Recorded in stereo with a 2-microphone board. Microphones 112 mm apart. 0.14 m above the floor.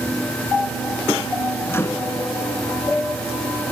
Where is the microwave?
20° left (ahead or behind), 0.9 m.